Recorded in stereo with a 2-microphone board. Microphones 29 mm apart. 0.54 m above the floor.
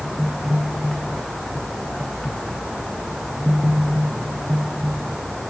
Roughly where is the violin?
I don't hear a violin.